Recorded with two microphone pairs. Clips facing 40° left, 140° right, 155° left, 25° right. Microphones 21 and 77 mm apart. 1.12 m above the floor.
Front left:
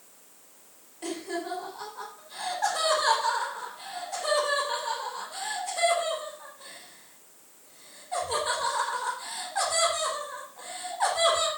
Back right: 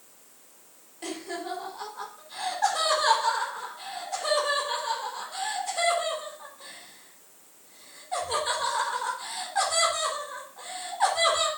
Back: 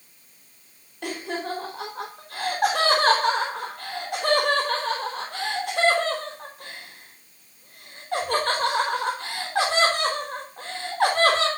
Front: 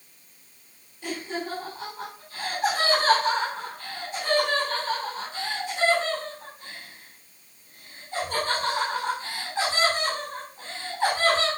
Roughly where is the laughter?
Behind left.